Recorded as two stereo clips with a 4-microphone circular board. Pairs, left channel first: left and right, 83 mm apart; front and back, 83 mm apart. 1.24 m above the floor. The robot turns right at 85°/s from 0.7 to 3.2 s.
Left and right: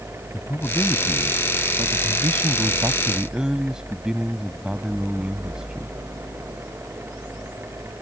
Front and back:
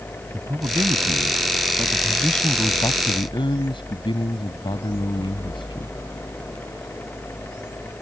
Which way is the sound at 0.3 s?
140° left.